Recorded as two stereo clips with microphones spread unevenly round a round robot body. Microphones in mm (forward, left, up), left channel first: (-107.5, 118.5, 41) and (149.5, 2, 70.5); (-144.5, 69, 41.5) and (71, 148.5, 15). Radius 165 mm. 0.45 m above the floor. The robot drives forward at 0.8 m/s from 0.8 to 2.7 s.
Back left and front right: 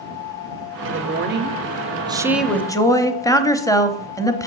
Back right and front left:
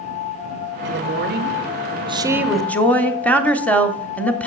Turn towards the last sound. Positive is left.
turn(degrees=110)